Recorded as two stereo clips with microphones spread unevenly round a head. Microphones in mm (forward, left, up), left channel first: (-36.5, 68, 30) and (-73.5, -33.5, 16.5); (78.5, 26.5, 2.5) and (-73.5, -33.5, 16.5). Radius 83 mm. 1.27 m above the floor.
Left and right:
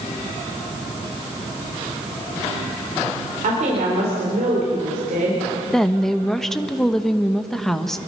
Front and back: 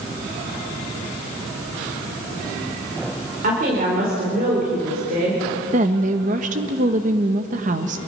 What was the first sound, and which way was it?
A woman speaking, 120° right.